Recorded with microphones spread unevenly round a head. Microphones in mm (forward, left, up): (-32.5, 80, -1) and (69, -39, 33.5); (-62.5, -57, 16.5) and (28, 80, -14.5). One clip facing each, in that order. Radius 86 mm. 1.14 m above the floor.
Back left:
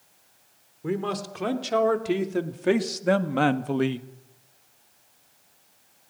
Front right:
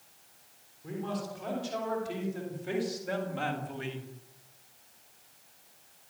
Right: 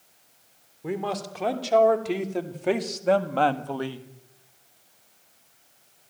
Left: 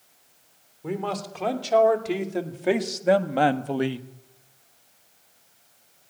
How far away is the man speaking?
About 3.5 m.